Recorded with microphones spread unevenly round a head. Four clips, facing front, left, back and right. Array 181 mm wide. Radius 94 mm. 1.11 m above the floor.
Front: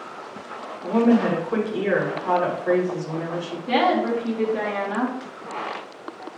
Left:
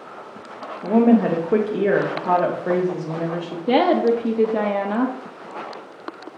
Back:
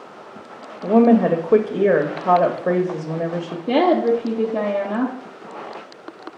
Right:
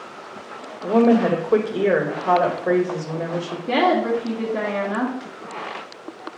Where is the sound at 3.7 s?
135° left, 1.2 m.